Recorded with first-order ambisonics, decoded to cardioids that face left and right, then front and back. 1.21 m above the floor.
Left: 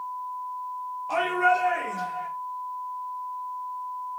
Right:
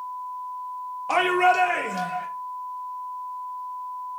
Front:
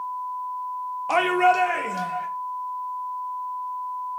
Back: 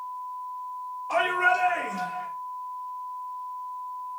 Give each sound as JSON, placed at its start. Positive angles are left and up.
{"t": 1.1, "sound": "a shout", "azimuth_deg": -30, "distance_m": 0.8}